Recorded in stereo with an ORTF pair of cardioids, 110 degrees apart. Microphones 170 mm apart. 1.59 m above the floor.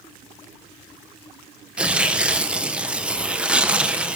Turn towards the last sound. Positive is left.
turn(degrees=-5)